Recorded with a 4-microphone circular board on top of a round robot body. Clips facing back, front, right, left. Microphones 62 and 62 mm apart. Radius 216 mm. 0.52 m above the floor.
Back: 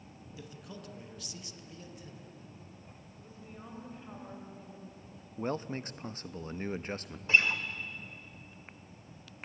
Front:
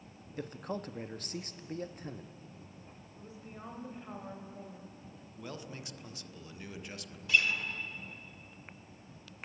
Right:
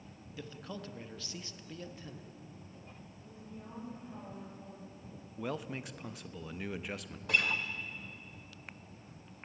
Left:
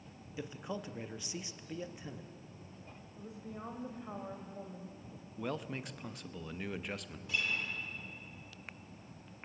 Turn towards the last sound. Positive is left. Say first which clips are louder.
# back 2 dB, right 5 dB
turn(degrees=-120)